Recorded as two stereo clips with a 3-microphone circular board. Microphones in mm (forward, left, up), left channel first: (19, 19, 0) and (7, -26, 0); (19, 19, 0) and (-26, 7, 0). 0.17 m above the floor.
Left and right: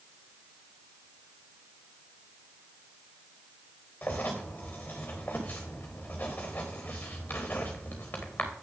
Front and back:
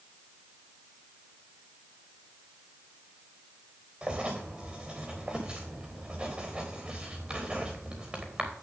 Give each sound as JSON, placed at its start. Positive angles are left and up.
{"t": 4.0, "sound": "writing", "azimuth_deg": 125, "distance_m": 3.0}